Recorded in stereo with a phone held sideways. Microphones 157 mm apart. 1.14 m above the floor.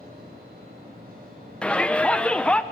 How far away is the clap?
I don't hear a clap.